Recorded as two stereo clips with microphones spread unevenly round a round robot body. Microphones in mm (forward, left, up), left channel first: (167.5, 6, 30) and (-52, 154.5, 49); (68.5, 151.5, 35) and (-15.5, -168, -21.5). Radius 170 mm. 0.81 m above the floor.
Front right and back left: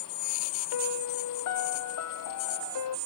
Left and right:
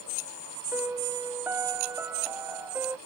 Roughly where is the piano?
Ahead.